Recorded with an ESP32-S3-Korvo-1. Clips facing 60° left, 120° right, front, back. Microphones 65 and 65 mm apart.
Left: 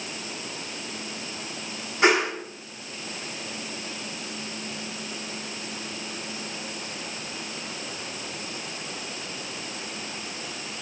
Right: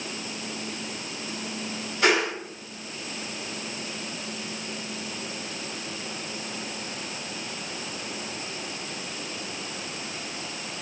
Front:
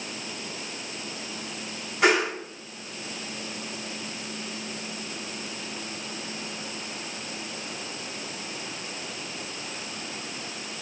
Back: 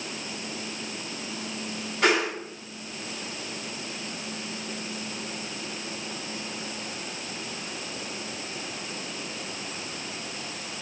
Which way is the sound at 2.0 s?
70° left.